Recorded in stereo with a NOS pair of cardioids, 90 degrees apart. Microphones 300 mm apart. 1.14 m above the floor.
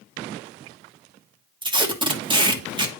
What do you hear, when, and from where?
1.6 s tape being pulled: 15° right, 1.3 m